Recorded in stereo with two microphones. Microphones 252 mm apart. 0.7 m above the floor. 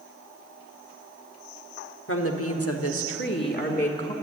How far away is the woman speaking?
About 1.4 m.